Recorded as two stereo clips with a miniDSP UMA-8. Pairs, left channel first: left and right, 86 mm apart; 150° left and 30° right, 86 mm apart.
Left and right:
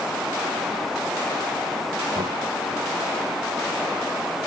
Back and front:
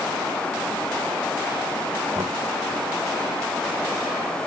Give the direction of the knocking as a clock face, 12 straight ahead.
2 o'clock.